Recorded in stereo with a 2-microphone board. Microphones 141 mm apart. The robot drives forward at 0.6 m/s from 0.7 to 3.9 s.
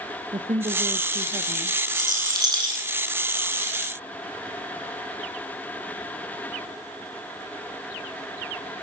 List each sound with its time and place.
0.3 s a woman speaking: 60° right (ahead or behind), 1.5 m; by 1.8 s 80° right, 1.3 m
1.9 s a rattle: 30° right (ahead or behind), 8.5 m; by 2.8 s 35° right (ahead or behind), 8 m